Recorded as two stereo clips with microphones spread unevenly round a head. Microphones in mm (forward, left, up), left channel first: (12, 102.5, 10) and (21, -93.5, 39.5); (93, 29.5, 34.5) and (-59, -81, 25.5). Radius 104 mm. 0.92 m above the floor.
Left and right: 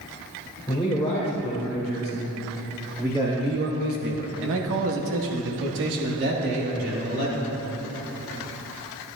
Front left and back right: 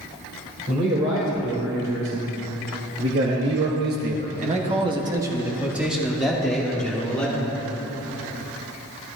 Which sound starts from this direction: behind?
A man speaking, at 0.7 s.